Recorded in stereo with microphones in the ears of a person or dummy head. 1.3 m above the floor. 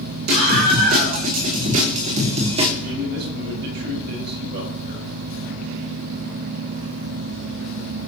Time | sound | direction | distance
0.3 | a scream | 55° right (ahead or behind) | 4.5 m
2.8 | a man speaking | 65° right (ahead or behind) | 6.5 m